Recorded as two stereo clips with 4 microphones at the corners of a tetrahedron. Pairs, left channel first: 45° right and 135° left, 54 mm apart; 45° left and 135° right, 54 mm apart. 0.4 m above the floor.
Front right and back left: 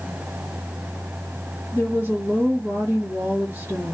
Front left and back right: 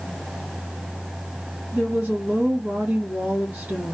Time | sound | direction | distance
1.7 | a woman speaking | 165° left | 2 m